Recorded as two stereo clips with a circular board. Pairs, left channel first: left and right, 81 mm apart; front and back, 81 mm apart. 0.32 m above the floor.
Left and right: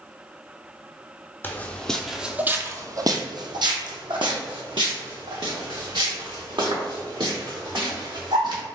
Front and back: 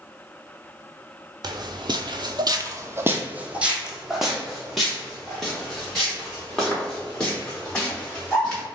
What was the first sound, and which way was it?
Footsteps, 155° left.